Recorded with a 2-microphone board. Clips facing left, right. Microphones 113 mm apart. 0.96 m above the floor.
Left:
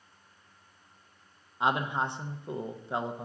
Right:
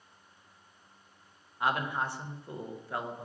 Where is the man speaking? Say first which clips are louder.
Left 2 dB; 20° left (ahead or behind), 0.6 m.